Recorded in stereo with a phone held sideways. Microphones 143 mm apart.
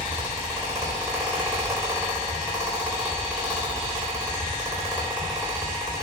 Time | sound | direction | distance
0.0 | a fan | 20° right (ahead or behind) | 4 m